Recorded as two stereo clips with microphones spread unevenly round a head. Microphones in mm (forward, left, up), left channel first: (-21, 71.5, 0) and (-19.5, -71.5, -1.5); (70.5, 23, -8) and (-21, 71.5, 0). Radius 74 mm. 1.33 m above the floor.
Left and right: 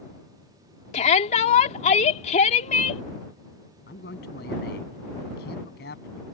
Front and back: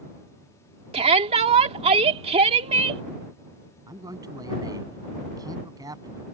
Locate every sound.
0.9 s a shout: 130° left
3.9 s a man speaking: 100° left